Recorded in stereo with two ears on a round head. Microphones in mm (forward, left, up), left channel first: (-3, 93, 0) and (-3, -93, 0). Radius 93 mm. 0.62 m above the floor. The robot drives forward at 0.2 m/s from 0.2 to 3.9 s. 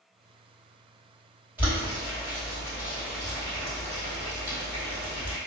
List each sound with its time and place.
1.6 s boiling: 10° right (ahead or behind), 1.4 m